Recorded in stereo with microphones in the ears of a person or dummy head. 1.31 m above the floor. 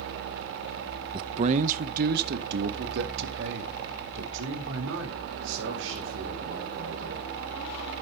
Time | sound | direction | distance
1.1 | a man speaking | 15° right (ahead or behind) | 0.7 m